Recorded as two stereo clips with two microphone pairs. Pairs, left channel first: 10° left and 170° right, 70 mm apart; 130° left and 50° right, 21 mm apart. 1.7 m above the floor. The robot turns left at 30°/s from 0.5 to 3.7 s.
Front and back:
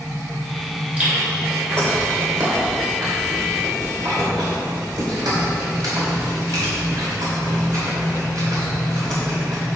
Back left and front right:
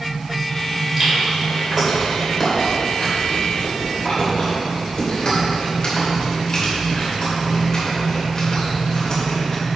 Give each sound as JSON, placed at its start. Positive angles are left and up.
{"t": 1.0, "sound": "chewing", "azimuth_deg": -100, "distance_m": 3.0}